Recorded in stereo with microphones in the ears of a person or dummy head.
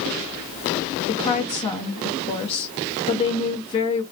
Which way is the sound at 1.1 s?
25° left (ahead or behind).